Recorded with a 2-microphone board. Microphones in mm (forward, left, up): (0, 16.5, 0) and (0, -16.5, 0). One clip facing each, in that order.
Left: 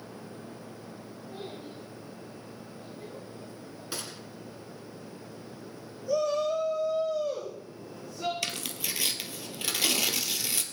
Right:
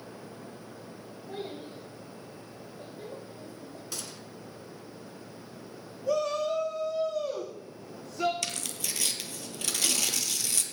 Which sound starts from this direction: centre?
Tearing paper, at 8.4 s.